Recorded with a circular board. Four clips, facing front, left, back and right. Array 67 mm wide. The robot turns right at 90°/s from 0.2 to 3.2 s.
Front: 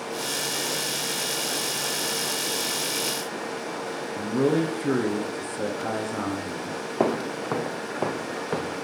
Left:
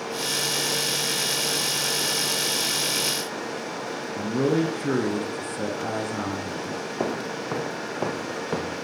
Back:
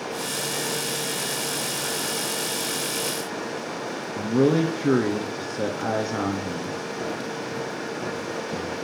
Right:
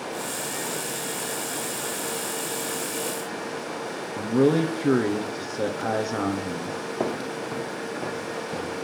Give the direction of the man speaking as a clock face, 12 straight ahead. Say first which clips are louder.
Right 3 dB, back 3 dB; 4 o'clock.